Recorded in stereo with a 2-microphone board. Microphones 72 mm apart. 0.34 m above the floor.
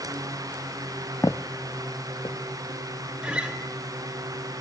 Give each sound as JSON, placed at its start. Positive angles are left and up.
{"t": 1.2, "sound": "footsteps", "side_deg": 45, "distance_m": 0.6}
{"t": 3.2, "sound": "a guitar", "side_deg": -15, "distance_m": 1.4}